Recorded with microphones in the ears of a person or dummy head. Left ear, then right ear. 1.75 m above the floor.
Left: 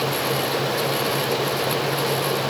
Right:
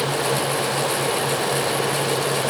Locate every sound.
Only background noise.